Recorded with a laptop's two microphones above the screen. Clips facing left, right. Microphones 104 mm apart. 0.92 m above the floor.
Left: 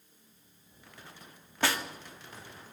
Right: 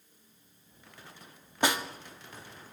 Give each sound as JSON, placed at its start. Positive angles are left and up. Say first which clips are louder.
{"t": 1.6, "sound": "a snare drum", "louder": "right 2 dB", "side_deg": -15, "distance_m": 1.9}